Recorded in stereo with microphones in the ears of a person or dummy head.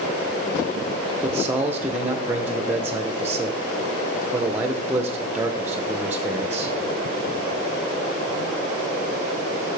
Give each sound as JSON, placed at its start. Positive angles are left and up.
{"t": 1.2, "sound": "a man speaking", "side_deg": -15, "distance_m": 0.6}